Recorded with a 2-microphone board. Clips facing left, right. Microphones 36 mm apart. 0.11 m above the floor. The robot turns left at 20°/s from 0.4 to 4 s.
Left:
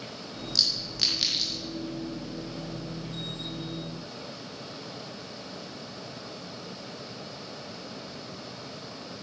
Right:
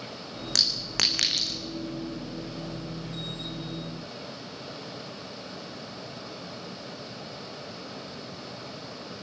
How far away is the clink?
About 4.5 m.